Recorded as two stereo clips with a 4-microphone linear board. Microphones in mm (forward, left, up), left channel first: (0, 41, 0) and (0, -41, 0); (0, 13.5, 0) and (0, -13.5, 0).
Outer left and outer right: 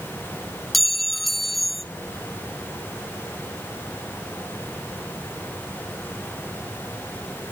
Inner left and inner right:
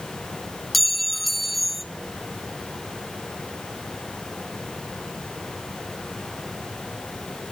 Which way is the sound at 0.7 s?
Centre (ahead or behind).